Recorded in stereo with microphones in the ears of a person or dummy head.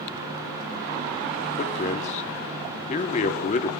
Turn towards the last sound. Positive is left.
turn(degrees=40)  # may be behind; listen again after turning